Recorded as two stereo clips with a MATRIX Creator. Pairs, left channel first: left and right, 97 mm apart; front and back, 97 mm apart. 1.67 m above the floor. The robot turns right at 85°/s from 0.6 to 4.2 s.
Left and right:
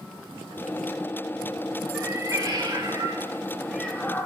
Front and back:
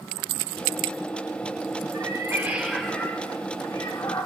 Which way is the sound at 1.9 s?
160° right.